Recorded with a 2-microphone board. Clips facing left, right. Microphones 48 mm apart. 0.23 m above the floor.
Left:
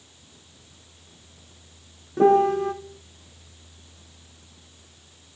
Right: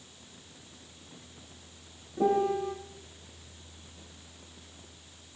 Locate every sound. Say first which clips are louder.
2.2 s a piano: left 9 dB; 65° left (ahead or behind), 1.0 m